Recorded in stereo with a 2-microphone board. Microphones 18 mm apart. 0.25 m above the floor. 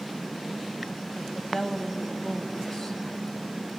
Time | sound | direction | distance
1.1 | a woman speaking | 35° left (ahead or behind) | 1.2 m